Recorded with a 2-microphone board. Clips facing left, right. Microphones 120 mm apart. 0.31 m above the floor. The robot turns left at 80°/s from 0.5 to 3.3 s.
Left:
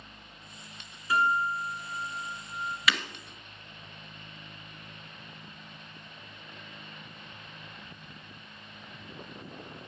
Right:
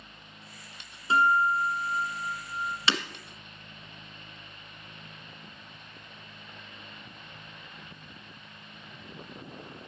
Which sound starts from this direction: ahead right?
A guitar, at 1.1 s.